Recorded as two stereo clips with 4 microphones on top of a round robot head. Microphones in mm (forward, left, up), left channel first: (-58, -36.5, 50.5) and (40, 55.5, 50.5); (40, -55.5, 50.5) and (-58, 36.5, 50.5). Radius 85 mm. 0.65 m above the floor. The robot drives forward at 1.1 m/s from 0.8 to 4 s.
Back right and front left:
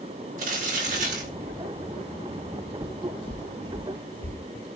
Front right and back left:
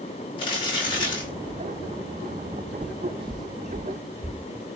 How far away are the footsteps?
About 0.7 m.